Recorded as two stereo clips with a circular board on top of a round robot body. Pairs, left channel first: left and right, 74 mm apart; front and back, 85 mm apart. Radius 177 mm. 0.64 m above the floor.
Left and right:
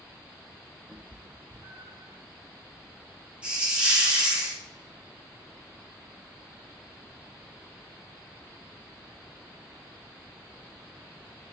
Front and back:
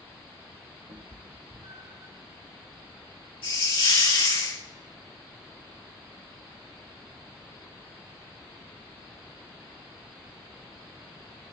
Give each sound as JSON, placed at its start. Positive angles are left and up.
{"t": 0.9, "sound": "a cat meowing", "azimuth_deg": -165, "distance_m": 1.6}
{"t": 3.4, "sound": "a hiss", "azimuth_deg": -15, "distance_m": 5.5}